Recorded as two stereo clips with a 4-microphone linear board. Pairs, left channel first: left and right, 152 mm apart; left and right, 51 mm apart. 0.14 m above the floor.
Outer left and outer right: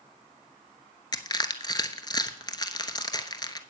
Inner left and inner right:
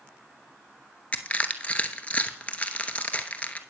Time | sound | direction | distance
1.1 | crushing | 25° left (ahead or behind) | 0.7 m